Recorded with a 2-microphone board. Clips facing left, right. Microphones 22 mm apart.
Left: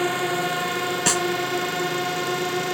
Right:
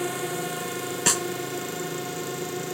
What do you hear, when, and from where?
0.0 s a drone: 30° left (ahead or behind); by 2.7 s 40° left (ahead or behind)
1.1 s a snare drum: 5° left (ahead or behind)